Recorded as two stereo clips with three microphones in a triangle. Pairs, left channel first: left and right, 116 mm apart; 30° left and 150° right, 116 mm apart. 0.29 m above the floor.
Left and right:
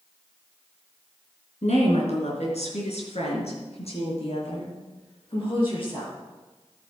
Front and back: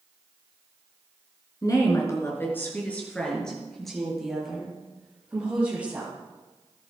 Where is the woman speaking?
85° left, 4 m; by 6.1 s 135° left, 8.5 m.